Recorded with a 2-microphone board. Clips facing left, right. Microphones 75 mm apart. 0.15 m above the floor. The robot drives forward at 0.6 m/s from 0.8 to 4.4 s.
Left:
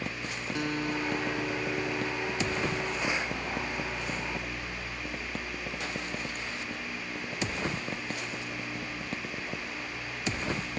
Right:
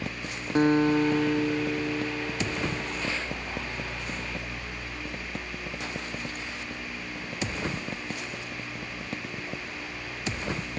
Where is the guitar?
40° right (ahead or behind); by 3.4 s 15° right (ahead or behind).